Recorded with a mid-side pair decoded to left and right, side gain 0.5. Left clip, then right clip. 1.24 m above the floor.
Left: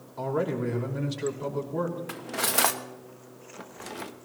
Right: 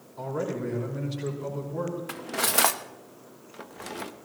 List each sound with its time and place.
0.2 s a man speaking: 35° left, 5.5 m
2.1 s cutlery clinking: 5° right, 0.9 m